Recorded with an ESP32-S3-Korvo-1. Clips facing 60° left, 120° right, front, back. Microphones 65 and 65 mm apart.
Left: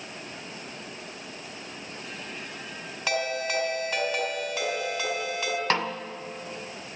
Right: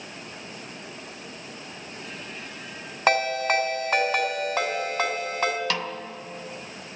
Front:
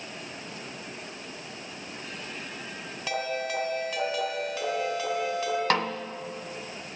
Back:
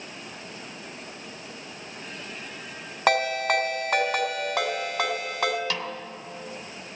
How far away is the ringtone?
About 2.5 m.